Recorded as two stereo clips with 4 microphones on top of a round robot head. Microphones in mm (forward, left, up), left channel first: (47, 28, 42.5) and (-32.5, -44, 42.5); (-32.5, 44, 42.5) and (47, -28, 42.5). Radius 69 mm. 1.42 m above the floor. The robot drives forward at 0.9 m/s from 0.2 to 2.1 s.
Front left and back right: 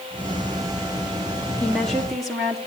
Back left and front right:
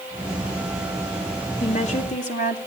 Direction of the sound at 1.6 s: 125° left.